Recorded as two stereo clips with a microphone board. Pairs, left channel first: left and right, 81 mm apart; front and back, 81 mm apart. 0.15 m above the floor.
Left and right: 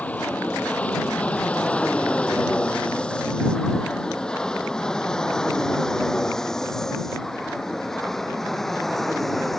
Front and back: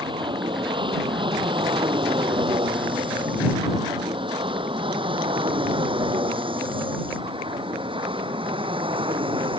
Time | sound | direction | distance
0.0 | an aircraft | 165° left | ?